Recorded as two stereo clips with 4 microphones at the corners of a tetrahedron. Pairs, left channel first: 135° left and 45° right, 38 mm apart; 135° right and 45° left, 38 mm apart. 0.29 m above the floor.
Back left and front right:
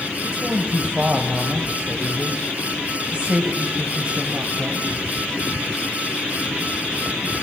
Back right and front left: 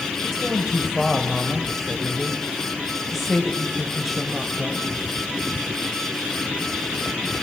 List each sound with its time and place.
0.2 s a woman speaking: 55° right, 1.2 m